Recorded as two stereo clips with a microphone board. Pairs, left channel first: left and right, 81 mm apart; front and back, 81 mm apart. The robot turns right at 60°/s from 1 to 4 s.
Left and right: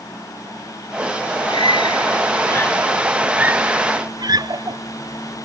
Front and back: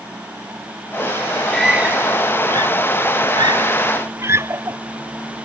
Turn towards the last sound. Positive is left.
turn(degrees=-125)